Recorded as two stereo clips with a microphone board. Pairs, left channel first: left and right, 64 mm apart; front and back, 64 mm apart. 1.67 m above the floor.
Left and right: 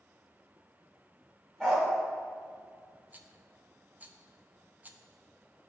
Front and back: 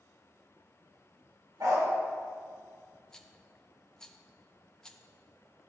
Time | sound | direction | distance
1.6 | a dog barking | 175° left | 2.5 m
3.1 | a rattle | 65° right | 0.6 m